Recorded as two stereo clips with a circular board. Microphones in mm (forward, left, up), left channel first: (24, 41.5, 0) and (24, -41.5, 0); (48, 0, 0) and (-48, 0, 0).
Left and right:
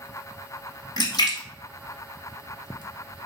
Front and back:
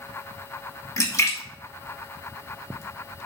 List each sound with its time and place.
1.0 s a splash: 55° left, 1.3 m